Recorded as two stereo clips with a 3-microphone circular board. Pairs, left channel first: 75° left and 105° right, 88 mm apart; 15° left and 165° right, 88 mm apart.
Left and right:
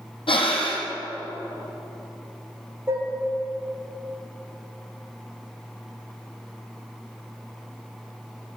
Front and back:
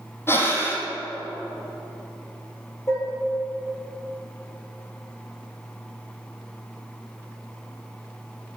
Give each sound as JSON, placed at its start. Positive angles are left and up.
{"t": 0.3, "sound": "breathing", "azimuth_deg": 80, "distance_m": 1.9}
{"t": 2.9, "sound": "dishes clattering", "azimuth_deg": -40, "distance_m": 3.0}